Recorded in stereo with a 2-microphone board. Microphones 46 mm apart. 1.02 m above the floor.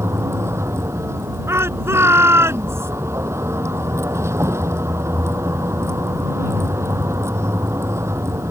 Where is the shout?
70° right (ahead or behind).